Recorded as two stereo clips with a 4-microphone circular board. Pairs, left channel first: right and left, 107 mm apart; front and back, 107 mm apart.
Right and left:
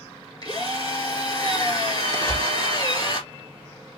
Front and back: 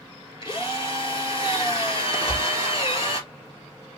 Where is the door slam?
65° right, 2.5 m.